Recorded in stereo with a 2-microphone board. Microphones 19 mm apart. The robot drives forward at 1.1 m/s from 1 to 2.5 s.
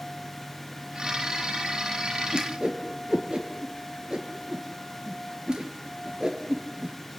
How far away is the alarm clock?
No alarm clock in this recording.